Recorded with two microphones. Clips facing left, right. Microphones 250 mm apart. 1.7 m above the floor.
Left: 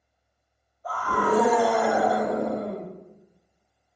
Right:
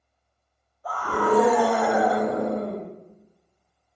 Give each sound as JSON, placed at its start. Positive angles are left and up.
{"t": 0.8, "sound": "a scream", "side_deg": -80, "distance_m": 1.8}